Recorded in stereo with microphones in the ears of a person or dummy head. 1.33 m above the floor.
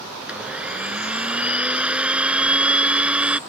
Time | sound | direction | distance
0.2 | a blender | 5° right (ahead or behind) | ?